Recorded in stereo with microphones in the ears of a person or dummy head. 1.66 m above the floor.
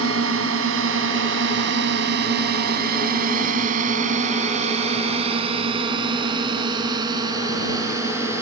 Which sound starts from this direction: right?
A drone, at 0.0 s.